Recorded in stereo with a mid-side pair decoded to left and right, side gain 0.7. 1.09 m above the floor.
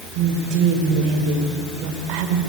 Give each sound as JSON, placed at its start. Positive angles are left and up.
{"t": 0.1, "sound": "a woman speaking", "azimuth_deg": -70, "distance_m": 4.0}